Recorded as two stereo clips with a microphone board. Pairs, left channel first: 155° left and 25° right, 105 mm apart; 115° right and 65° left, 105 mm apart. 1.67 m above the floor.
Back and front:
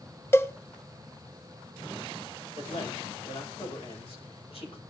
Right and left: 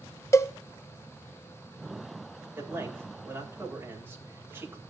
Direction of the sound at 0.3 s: 155° right.